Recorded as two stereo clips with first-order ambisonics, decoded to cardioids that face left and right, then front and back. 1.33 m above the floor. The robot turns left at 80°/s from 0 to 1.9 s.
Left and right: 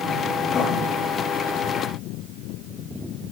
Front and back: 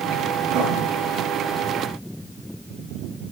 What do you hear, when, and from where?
0.5 s writing: 155° left, 9 m; by 0.8 s 130° left, 9 m